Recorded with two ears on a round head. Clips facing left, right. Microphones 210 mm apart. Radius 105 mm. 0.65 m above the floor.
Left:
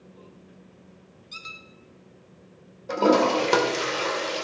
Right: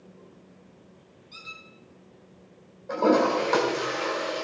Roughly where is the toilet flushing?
Left.